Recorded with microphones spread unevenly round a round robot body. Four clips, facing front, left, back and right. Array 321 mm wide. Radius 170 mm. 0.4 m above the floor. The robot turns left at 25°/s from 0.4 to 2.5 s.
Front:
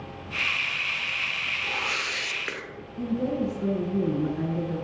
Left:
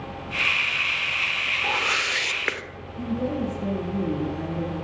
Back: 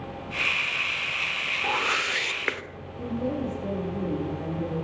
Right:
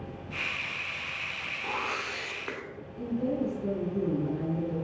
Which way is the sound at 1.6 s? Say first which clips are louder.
Left 6 dB, back 6 dB; 150° left.